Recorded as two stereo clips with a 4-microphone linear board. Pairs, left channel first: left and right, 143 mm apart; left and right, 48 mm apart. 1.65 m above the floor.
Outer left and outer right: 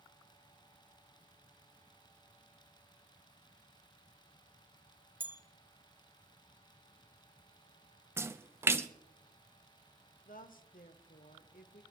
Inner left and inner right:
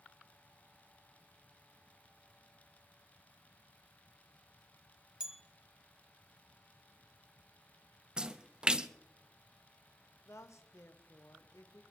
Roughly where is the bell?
Centre.